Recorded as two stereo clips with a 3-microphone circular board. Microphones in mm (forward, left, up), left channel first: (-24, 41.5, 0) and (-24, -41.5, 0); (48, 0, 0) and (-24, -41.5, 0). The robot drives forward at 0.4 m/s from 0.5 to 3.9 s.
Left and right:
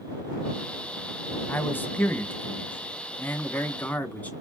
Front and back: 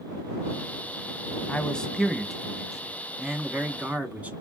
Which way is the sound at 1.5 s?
85° left.